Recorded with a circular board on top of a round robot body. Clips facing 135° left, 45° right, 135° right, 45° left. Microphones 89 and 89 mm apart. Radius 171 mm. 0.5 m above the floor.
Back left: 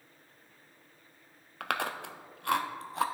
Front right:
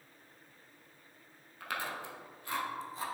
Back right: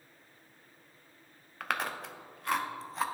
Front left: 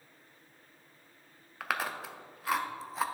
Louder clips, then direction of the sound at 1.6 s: Back left 5 dB, even; 130° left.